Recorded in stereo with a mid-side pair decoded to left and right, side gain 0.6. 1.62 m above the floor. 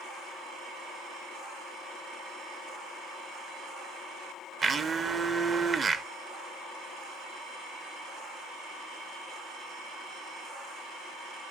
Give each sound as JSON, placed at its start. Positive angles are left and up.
{"t": 4.6, "sound": "a blender", "azimuth_deg": -30, "distance_m": 0.8}